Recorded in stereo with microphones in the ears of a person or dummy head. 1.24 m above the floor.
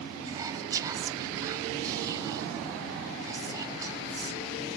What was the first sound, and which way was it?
Whispering, 25° right (ahead or behind).